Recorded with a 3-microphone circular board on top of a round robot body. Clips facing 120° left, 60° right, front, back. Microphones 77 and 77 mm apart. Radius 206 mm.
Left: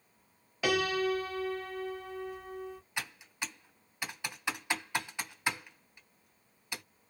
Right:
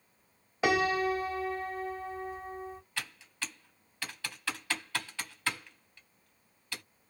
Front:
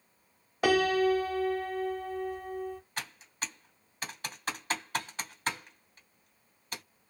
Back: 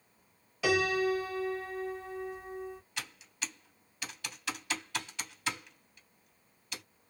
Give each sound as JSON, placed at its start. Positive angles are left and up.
{"t": 0.6, "sound": "a piano", "azimuth_deg": -10, "distance_m": 1.9}
{"t": 3.0, "sound": "typing on a keyboard", "azimuth_deg": 50, "distance_m": 1.3}